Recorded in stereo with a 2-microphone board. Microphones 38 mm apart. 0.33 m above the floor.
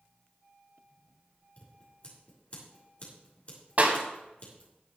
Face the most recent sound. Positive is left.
turn(degrees=-45)  # may be behind; listen again after turning